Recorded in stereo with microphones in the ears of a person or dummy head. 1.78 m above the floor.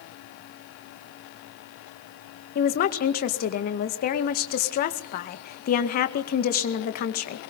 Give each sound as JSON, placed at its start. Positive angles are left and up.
{"t": 2.5, "sound": "a woman speaking", "side_deg": 50, "distance_m": 1.9}